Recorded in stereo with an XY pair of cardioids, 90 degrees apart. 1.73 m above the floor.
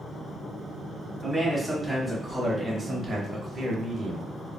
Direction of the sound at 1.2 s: 10° right.